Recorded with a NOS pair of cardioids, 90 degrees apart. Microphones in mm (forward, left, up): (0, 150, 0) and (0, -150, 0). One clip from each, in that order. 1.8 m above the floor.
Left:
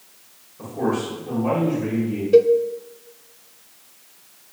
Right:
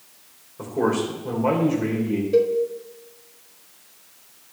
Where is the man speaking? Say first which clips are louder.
Right 2 dB; 55° right, 3.5 m.